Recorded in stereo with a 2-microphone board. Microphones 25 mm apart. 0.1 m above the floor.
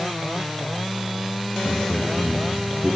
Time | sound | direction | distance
1.6 | a man speaking | 35° left (ahead or behind) | 5 m